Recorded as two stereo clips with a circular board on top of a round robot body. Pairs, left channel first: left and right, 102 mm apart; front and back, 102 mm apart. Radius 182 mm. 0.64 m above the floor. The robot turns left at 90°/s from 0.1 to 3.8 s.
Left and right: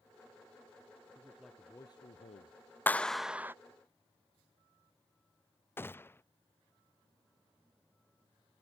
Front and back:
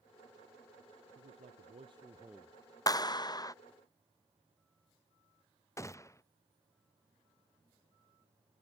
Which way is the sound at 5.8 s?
40° left.